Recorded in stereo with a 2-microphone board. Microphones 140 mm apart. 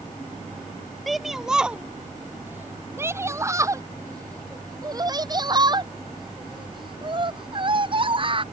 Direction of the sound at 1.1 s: Centre (ahead or behind).